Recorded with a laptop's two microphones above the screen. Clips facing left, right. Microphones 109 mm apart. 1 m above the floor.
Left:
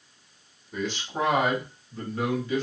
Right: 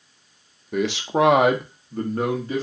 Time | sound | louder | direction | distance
0.7 | a man speaking | right 9 dB | 65° right (ahead or behind) | 0.6 m